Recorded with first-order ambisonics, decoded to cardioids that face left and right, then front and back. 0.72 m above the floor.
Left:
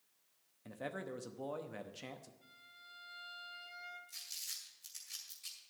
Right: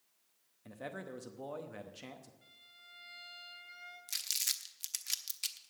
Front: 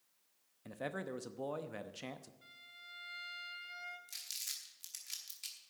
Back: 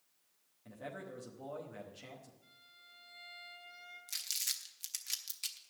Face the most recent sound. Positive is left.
turn(degrees=-110)